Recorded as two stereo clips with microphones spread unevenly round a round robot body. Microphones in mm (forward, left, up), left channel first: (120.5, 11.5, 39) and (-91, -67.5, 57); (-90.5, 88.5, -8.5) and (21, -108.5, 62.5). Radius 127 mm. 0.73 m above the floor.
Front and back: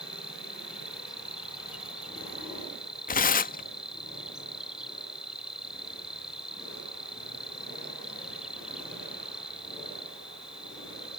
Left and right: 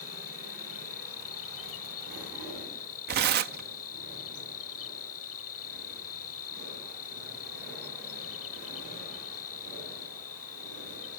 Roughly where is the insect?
Behind left.